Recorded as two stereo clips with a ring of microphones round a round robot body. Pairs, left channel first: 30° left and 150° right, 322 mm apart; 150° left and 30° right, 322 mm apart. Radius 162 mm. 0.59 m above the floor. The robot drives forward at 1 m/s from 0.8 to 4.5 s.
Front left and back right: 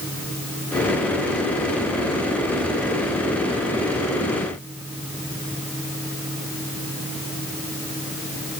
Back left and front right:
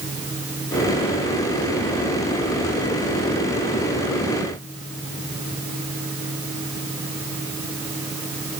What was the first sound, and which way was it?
Only background noise.